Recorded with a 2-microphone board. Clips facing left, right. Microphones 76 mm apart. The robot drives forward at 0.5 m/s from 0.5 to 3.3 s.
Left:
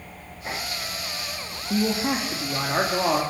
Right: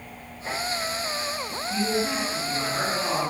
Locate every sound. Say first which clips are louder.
1.7 s a man speaking: left 3 dB; 50° left (ahead or behind), 3 m; by 3.2 s 40° left (ahead or behind), 3.5 m